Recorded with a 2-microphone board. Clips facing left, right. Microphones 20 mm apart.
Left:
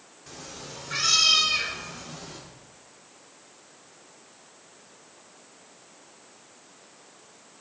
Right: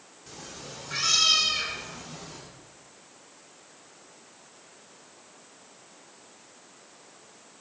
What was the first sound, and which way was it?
A cat meowing, 5° left (ahead or behind).